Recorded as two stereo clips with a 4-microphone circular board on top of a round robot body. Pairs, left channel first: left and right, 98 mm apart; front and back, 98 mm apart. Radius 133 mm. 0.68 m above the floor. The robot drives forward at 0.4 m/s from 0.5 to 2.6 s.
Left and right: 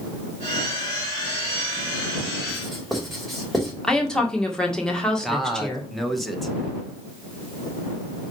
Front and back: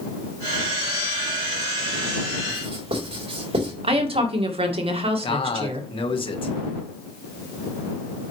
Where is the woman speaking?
175° left, 2 m.